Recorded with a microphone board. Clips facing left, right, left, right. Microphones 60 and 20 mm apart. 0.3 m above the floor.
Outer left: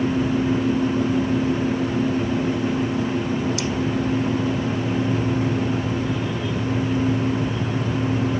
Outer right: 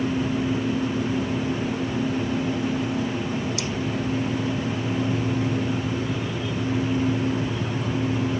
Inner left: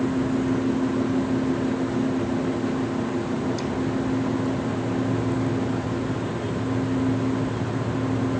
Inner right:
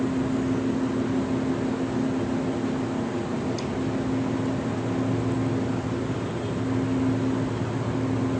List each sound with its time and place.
Only background noise.